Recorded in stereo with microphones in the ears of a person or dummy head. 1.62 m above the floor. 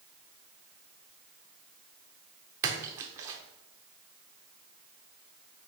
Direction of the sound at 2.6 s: 20° right (ahead or behind).